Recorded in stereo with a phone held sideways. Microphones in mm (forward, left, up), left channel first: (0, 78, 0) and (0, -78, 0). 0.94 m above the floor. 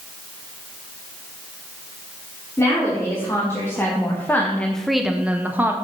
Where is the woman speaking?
15° left (ahead or behind), 3 m; by 5.8 s 15° right (ahead or behind), 1.4 m.